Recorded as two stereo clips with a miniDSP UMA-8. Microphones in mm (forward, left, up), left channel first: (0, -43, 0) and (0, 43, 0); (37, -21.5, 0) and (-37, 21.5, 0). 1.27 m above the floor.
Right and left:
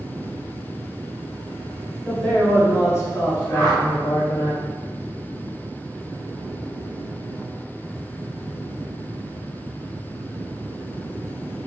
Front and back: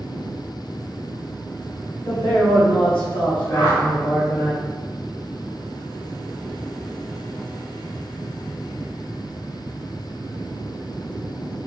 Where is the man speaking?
20° right, 1.5 m; by 4.5 s 75° right, 1.2 m.